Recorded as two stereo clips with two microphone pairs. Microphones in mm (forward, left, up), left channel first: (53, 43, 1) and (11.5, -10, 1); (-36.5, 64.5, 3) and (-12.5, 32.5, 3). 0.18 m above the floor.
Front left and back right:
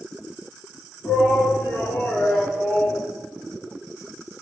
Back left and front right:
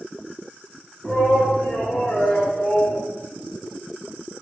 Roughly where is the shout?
Left.